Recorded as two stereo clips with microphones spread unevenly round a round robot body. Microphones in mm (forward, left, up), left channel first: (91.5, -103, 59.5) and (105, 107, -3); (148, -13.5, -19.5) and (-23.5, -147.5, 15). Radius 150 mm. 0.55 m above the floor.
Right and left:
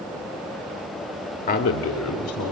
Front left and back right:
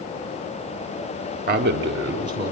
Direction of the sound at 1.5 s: 145° right.